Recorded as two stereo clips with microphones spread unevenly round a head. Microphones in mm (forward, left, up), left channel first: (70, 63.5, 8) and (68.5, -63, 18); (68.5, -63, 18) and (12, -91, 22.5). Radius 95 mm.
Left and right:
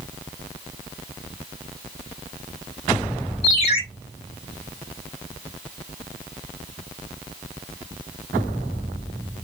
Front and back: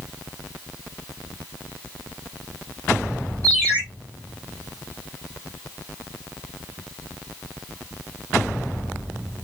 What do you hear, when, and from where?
3.4 s a ringtone: 100° left, 2 m